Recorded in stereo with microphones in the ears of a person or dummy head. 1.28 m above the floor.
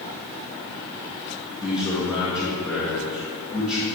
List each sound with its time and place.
1.6 s a man speaking: 10° left (ahead or behind), 2 m